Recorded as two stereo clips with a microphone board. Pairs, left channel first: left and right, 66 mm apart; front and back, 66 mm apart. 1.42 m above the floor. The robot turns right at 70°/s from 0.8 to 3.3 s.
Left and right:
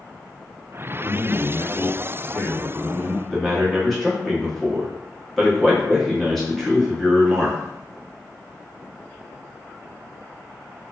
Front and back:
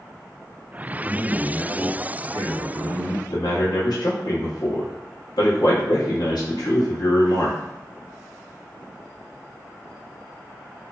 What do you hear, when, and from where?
1.0 s a man speaking: 70° left, 0.8 m; by 3.2 s 140° right, 0.8 m
3.3 s a man speaking: 5° left, 0.9 m